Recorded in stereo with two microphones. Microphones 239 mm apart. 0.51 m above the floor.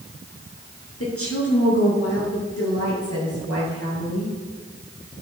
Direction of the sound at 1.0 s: 70° left (ahead or behind).